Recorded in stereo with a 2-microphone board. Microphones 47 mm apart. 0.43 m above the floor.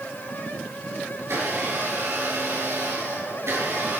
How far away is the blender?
About 8 m.